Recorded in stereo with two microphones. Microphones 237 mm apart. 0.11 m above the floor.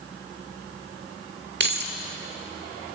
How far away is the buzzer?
I don't hear a buzzer.